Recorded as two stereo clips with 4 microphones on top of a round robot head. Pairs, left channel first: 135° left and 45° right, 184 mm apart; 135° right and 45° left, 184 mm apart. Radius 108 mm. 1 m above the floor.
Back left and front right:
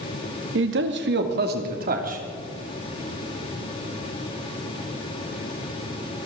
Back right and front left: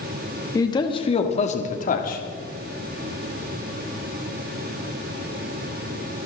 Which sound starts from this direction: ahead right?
A man speaking, at 0.6 s.